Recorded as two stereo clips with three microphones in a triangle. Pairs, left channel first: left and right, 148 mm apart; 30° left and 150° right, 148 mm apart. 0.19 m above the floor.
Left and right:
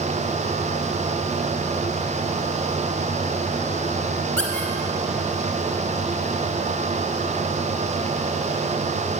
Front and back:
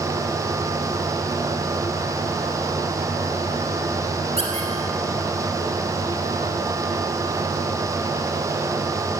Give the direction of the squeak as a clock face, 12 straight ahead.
6 o'clock.